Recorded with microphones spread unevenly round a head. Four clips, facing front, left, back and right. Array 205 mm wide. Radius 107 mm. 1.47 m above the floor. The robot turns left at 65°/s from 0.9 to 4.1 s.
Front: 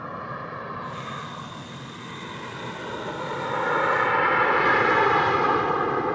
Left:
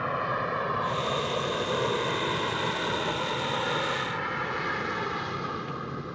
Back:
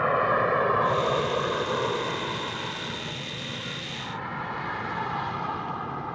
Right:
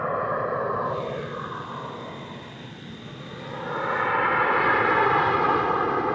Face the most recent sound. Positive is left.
turn(degrees=-40)